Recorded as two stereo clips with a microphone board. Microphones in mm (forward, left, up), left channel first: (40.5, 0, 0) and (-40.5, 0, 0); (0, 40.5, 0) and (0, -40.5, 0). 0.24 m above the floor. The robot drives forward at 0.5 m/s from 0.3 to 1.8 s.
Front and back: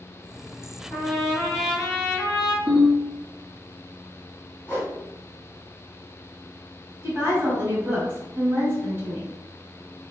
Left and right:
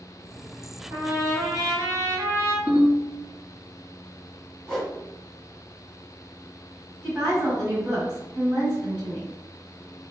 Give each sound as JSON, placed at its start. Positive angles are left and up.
{"t": 0.9, "sound": "a trumpet", "azimuth_deg": -75, "distance_m": 1.6}
{"t": 2.7, "sound": "a ringtone", "azimuth_deg": 145, "distance_m": 1.9}
{"t": 4.7, "sound": "a whoosh", "azimuth_deg": 5, "distance_m": 1.2}
{"t": 7.0, "sound": "a woman speaking", "azimuth_deg": -160, "distance_m": 1.2}